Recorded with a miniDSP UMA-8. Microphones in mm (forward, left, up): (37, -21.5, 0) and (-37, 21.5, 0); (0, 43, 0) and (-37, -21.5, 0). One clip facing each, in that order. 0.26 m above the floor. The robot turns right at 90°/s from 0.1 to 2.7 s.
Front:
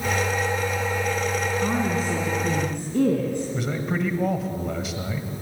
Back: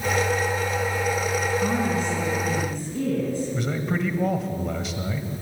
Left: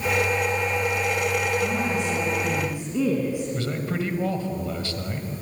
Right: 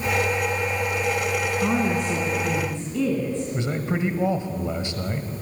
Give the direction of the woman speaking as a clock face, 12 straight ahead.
4 o'clock.